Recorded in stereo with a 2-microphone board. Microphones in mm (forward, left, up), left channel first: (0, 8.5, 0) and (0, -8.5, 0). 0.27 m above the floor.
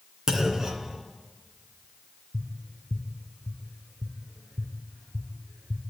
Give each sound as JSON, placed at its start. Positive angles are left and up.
{"t": 0.3, "sound": "a clunk", "side_deg": -35, "distance_m": 2.0}
{"t": 2.3, "sound": "tapping", "side_deg": -15, "distance_m": 5.0}